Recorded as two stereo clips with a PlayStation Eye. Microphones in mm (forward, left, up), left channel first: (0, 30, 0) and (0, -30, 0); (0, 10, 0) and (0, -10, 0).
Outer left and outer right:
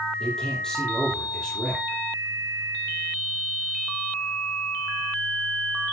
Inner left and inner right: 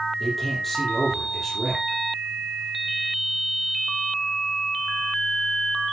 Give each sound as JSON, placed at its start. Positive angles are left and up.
{"t": 0.2, "sound": "a man speaking", "side_deg": 10, "distance_m": 6.5}